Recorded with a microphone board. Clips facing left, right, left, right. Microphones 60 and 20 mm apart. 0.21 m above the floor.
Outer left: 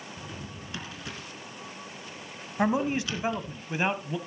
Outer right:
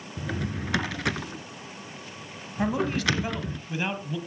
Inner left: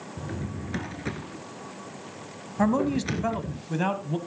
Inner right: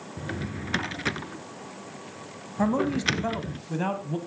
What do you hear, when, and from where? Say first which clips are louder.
0.2 s a drawer: outer right 9 dB, inner right 2 dB; 75° right (ahead or behind), 0.7 m
2.6 s a man speaking: even, inner left 1 dB; 20° left (ahead or behind), 1.2 m